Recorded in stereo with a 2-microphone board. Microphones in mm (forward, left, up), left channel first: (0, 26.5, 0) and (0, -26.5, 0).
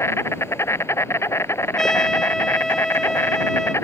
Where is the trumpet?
10° left (ahead or behind).